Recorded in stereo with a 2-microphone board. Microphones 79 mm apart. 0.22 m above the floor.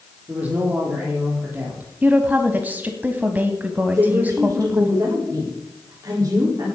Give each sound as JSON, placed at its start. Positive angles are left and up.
{"t": 0.3, "sound": "a man speaking", "side_deg": -20, "distance_m": 7.0}
{"t": 2.0, "sound": "a woman speaking", "side_deg": -20, "distance_m": 1.2}
{"t": 3.9, "sound": "a woman speaking", "side_deg": -45, "distance_m": 9.5}